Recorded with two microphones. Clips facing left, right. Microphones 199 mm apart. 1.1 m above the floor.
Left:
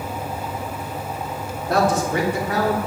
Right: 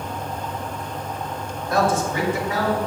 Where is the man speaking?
70° left (ahead or behind), 3 m; by 2.8 s 65° left (ahead or behind), 4 m.